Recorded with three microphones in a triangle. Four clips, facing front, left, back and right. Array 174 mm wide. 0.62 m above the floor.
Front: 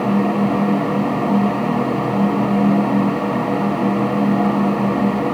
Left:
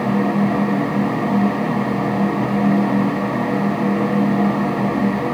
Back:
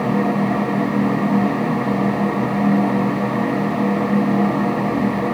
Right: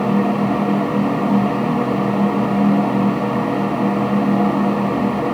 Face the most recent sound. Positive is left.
No sound to turn to.